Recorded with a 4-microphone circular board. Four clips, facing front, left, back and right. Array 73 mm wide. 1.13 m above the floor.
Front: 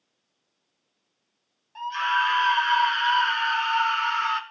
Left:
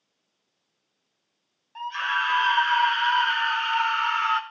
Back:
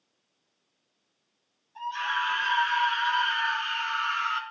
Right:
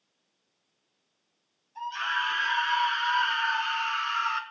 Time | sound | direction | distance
1.8 | a scream | 60° left | 5.5 m